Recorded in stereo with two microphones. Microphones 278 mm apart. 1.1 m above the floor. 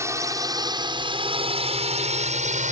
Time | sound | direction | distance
0.0 | a drone | 10° right (ahead or behind) | ?